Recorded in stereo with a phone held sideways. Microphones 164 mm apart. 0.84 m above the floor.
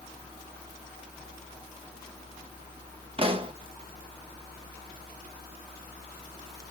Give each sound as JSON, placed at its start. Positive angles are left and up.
{"t": 3.2, "sound": "a pop", "side_deg": -35, "distance_m": 0.8}